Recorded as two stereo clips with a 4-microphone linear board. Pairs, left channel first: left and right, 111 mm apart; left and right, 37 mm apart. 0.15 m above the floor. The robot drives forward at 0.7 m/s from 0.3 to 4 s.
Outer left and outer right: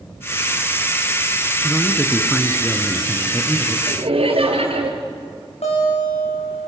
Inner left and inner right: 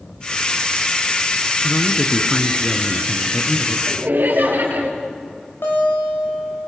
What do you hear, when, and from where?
1.6 s a man speaking: 5° left (ahead or behind), 1.4 m; by 3.8 s centre (ahead or behind), 2.5 m
3.9 s laughter: 65° right (ahead or behind), 3.5 m
5.6 s a guitar: 80° left, 7 m